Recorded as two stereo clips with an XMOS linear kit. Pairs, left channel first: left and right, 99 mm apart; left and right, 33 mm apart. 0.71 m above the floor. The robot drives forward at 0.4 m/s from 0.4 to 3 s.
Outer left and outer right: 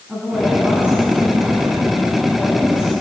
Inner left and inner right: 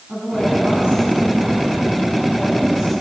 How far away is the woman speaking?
About 6.5 m.